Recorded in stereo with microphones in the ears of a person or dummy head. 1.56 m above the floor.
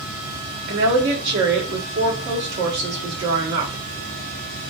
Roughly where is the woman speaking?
Right.